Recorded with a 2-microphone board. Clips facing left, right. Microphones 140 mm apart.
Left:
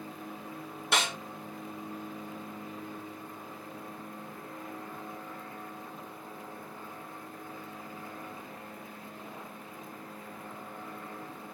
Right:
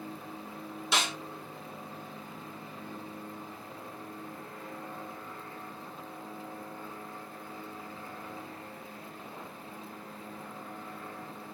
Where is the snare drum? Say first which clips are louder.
Left 1 dB; 55° left (ahead or behind), 1.5 m.